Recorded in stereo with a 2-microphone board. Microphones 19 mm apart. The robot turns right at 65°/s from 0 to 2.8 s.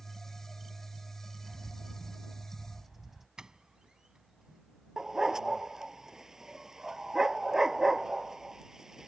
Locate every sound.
1.4 s a bird: 125° right; by 3.3 s 35° right
3.4 s a doorbell: 40° right (ahead or behind)
5.0 s a dog barking: 30° right (ahead or behind)